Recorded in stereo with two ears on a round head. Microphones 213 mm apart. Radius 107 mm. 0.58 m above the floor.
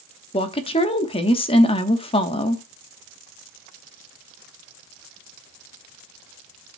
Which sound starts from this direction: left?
A woman speaking, at 0.3 s.